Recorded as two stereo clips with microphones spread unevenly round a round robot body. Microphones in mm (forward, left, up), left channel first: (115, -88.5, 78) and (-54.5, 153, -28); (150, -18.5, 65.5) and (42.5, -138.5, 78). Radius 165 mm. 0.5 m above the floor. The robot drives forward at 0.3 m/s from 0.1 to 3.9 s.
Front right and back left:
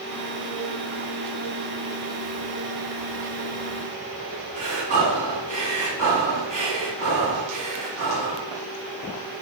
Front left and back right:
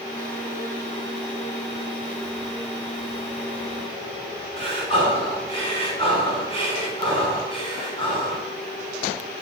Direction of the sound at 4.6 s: 165° left.